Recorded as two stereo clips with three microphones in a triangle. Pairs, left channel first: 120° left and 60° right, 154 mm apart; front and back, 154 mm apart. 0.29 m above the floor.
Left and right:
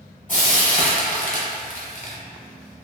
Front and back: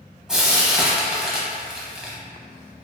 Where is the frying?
95° left, 0.8 m.